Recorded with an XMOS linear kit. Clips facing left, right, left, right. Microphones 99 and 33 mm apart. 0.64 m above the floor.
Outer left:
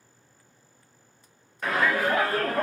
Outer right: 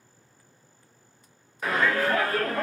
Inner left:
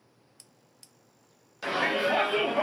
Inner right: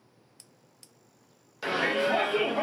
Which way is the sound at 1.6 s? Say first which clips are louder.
Even, even; 5° right (ahead or behind).